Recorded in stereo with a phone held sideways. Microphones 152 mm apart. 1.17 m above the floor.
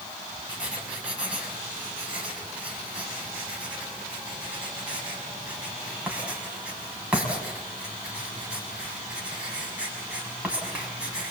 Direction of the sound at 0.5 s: 5° right (ahead or behind).